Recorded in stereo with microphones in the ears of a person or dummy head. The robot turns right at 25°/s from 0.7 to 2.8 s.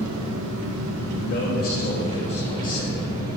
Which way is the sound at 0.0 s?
80° right.